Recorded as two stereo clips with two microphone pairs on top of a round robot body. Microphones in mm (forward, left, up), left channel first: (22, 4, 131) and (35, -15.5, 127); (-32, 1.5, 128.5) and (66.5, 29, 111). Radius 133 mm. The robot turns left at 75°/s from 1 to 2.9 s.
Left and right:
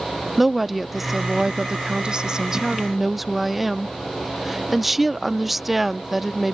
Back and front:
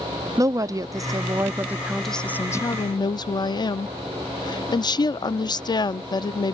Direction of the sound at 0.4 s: 15° left.